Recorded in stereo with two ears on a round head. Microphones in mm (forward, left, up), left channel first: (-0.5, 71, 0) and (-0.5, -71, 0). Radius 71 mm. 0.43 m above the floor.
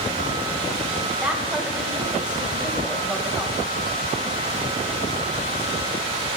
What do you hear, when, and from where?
1.2 s a woman speaking: 5° right (ahead or behind), 2.5 m